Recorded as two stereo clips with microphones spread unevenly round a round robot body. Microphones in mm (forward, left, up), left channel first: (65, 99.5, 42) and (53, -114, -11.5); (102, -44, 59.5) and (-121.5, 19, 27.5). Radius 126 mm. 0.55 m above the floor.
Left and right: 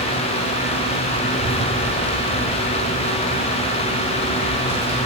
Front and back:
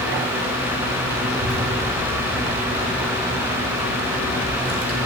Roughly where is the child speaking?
Behind left.